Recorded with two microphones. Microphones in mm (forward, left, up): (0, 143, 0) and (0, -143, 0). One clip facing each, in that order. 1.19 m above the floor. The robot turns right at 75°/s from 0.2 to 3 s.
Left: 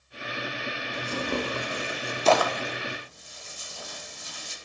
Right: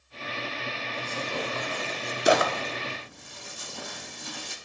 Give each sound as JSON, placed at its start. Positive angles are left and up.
{"t": 0.9, "sound": "tearing paper", "side_deg": 80, "distance_m": 1.7}